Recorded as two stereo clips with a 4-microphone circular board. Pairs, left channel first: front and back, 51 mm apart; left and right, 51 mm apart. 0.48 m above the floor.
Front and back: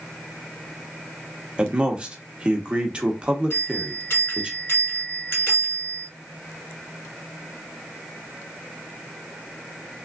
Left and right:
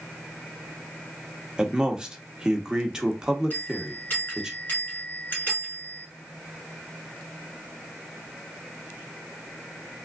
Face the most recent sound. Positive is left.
turn(degrees=40)